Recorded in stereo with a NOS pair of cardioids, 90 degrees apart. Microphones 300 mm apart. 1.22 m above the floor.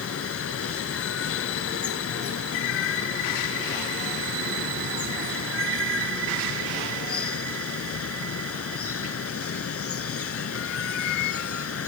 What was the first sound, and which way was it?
Running water, 50° left.